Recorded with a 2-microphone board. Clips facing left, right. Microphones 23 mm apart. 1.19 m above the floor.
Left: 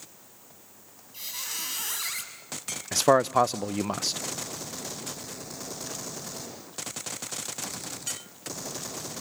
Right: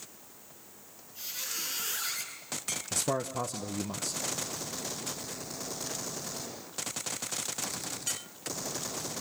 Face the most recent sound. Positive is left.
turn(degrees=50)  # may be behind; listen again after turning